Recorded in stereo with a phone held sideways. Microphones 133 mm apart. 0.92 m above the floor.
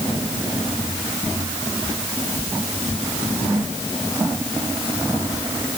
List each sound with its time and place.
Only background noise.